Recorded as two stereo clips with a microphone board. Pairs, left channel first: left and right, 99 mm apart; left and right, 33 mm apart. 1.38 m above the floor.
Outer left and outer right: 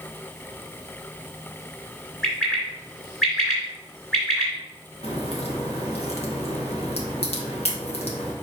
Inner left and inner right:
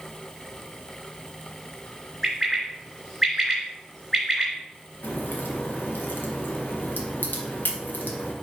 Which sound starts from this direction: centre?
A bird, at 2.2 s.